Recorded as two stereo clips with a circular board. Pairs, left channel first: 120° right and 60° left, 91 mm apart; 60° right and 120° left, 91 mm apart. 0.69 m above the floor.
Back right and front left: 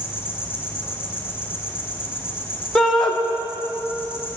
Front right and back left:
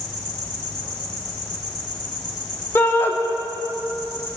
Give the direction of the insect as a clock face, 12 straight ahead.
1 o'clock.